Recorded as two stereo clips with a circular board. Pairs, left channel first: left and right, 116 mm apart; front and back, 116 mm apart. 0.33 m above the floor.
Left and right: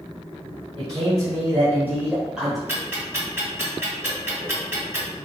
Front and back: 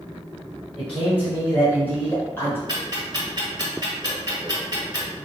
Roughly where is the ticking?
Behind right.